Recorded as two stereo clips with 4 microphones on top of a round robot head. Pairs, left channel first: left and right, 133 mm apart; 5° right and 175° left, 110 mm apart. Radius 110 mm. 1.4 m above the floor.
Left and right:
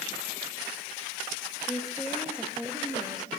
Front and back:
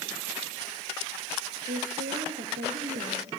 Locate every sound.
1.7 s a woman speaking: 175° left, 2.5 m; by 3.3 s 145° right, 2 m